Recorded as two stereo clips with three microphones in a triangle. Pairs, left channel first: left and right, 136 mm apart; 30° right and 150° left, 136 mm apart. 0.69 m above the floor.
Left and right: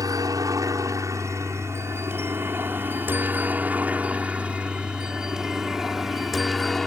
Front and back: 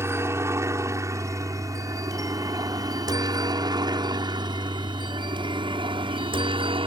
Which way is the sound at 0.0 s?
145° right.